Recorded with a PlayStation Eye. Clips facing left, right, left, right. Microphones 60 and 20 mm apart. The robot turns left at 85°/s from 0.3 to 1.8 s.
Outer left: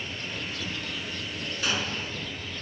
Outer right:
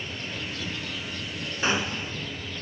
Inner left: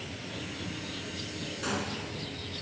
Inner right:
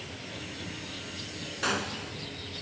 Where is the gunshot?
35° right (ahead or behind), 0.7 m; by 2.1 s 20° right (ahead or behind), 0.7 m.